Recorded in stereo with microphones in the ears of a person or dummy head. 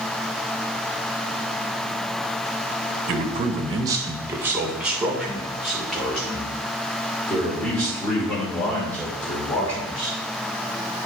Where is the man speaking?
40° right (ahead or behind), 0.9 m; by 10.1 s 10° left (ahead or behind), 5 m.